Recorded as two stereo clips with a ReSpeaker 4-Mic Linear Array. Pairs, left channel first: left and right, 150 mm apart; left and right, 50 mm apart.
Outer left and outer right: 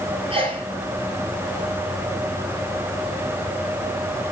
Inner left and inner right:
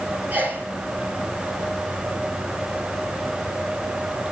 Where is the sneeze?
35° right (ahead or behind), 5 m.